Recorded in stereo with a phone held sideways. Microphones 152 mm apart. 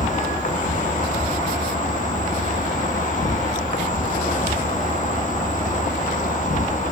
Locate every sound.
0.0 s an insect: 55° left (ahead or behind), 0.9 m